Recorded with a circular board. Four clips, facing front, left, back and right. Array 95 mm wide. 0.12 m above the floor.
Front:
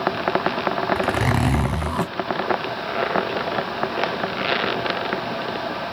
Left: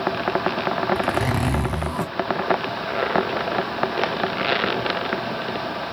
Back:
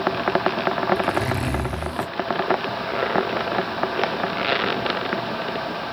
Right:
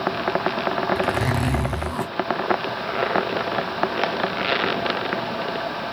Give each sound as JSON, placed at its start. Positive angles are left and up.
{"t": 0.9, "sound": "a zipper", "azimuth_deg": 10, "distance_m": 2.5}